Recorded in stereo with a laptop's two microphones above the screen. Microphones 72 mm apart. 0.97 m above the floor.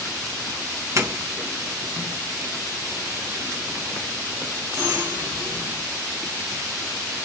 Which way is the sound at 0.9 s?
45° right (ahead or behind).